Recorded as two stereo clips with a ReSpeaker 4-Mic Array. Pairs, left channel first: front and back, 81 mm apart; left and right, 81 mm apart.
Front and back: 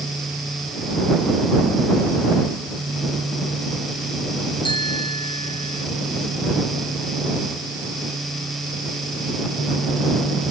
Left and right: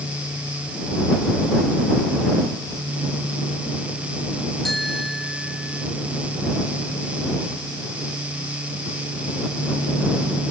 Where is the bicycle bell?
Straight ahead.